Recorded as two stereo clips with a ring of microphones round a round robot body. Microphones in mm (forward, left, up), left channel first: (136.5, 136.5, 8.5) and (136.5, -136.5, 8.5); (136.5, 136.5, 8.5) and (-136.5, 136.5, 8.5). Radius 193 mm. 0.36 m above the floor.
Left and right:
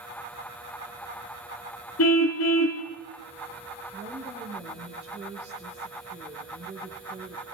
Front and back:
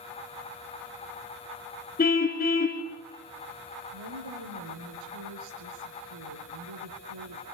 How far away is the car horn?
About 2 m.